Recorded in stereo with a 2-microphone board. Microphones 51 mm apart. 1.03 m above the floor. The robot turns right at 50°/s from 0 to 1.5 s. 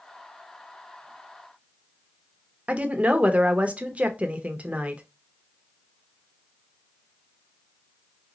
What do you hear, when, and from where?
2.7 s a woman speaking: 30° right (ahead or behind), 0.5 m